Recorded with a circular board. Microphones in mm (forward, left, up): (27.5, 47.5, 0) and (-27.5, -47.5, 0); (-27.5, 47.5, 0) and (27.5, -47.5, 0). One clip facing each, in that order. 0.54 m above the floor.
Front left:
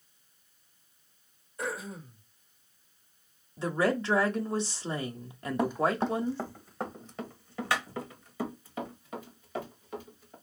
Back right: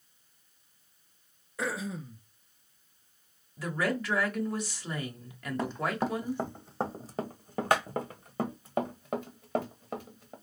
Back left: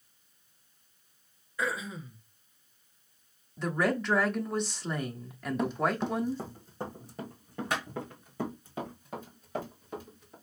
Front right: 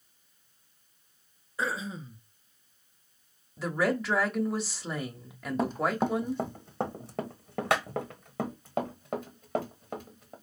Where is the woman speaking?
25° left, 1.1 m.